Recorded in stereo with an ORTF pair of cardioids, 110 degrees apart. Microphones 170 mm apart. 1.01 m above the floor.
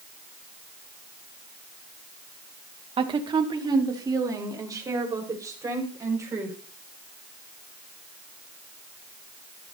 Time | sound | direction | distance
3.0 | a woman speaking | 30° right | 1.9 m